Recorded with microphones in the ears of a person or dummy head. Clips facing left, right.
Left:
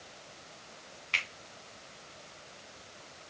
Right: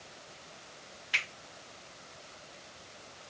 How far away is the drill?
No drill in this recording.